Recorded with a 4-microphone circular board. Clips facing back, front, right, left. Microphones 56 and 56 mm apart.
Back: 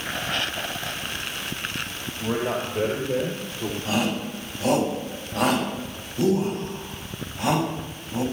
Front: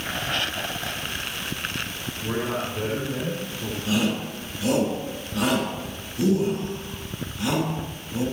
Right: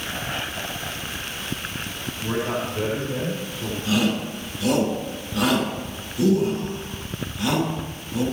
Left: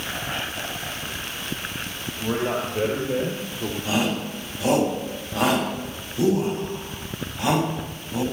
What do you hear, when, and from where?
2.2 s a man speaking: 145° left, 3.5 m; by 3.8 s 125° left, 3.5 m
3.9 s a shout: 135° left, 6 m